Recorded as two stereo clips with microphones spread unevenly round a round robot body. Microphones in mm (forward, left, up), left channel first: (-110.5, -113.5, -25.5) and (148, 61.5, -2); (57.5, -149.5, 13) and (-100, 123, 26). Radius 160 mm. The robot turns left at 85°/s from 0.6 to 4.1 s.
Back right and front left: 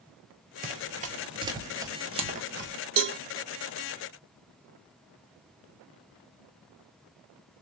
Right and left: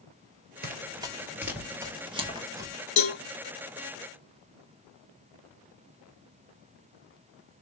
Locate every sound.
0.6 s running footsteps: 80° left, 1.1 m; by 2.7 s 40° left, 1.2 m
3.0 s a cowbell: 10° right, 1.0 m; by 3.2 s 30° right, 1.0 m